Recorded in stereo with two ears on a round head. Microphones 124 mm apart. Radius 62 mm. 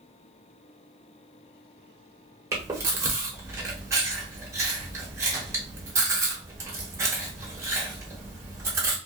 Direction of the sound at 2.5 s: 20° right (ahead or behind).